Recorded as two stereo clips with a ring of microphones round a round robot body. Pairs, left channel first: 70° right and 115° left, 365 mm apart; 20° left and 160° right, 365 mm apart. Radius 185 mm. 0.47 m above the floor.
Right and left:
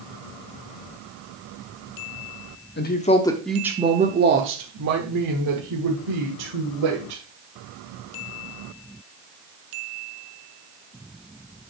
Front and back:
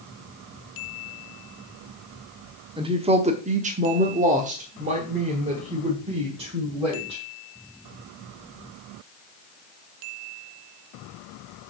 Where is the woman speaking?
95° right, 1.0 m; by 7.2 s 125° left, 2.5 m.